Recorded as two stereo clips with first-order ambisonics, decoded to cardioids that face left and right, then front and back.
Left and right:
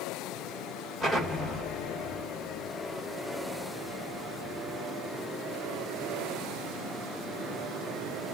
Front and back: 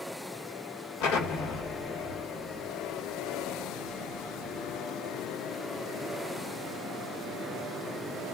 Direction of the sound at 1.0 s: 15° left.